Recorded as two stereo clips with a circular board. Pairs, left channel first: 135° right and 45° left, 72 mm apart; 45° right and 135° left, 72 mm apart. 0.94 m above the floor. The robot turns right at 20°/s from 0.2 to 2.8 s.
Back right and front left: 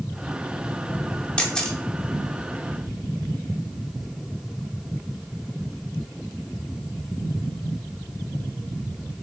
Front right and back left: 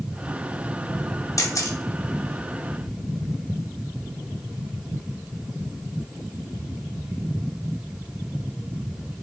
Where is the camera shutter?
60° right, 0.6 m; by 1.8 s 55° right, 0.6 m.